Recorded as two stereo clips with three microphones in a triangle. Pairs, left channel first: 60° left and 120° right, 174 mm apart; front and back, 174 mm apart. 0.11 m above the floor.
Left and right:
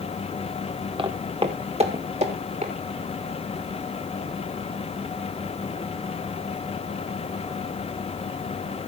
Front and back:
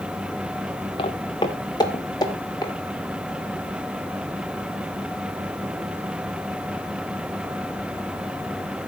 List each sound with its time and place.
1.0 s footsteps: 60° right, 1.8 m; by 2.7 s 70° right, 3.5 m